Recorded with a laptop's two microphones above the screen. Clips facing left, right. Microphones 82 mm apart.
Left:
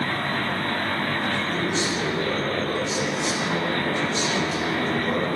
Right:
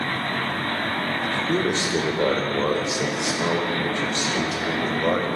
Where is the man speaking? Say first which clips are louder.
Right 2 dB; 75° right (ahead or behind), 3.5 m; by 5.3 s 80° right, 7 m.